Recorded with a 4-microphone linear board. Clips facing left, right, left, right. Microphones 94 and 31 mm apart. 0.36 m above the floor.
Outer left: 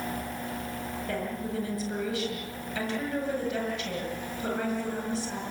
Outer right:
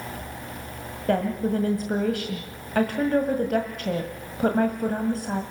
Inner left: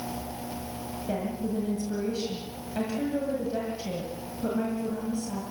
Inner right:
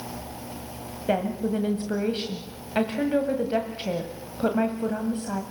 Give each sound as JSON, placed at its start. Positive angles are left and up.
{"t": 1.1, "sound": "a woman speaking", "side_deg": -55, "distance_m": 1.8}